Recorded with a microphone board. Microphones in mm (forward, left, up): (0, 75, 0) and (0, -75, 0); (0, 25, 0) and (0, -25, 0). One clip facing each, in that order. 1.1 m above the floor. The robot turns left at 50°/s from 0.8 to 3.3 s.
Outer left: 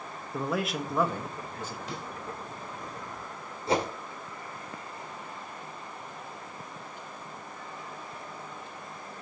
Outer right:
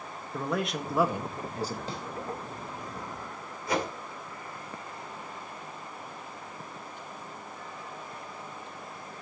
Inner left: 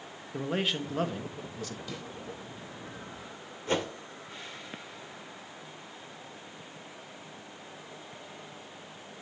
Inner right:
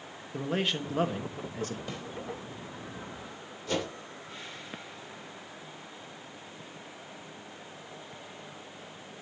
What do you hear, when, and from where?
0.3 s a man speaking: straight ahead, 1.2 m; by 1.8 s 45° right, 1.2 m
1.9 s a snare drum: 35° right (ahead or behind), 3.5 m; by 2.0 s 40° right (ahead or behind), 3.5 m
3.7 s a whoosh: 30° left (ahead or behind), 1.8 m